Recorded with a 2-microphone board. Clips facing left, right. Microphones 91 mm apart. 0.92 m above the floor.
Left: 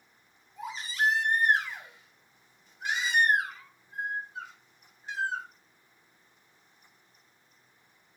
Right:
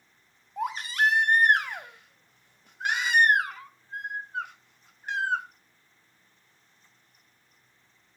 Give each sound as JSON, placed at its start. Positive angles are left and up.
{"t": 0.6, "sound": "a baby crying", "side_deg": -65, "distance_m": 1.0}